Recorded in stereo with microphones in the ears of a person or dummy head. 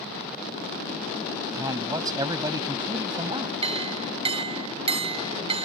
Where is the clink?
30° right (ahead or behind).